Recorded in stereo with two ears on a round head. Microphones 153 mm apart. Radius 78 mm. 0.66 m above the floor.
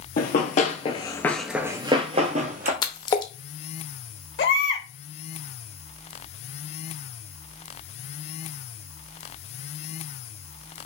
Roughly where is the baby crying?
Left.